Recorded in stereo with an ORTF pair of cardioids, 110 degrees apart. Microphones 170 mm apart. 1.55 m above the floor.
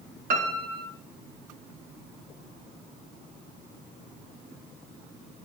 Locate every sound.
0.3 s a piano: 60° right, 2.5 m